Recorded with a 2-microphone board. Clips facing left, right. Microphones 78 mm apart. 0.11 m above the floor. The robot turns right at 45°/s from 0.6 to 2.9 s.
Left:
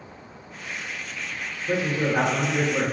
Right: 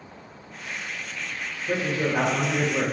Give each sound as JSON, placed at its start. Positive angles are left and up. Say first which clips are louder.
{"t": 1.7, "sound": "a man speaking", "louder": "left 1 dB", "side_deg": 10, "distance_m": 1.7}